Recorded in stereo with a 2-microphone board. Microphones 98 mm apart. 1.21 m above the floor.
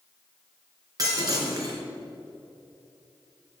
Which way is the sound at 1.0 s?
40° right (ahead or behind).